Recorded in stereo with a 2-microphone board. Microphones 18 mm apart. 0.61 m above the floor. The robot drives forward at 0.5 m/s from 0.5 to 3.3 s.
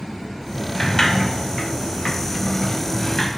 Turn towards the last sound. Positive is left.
turn(degrees=30)  # may be behind; listen again after turning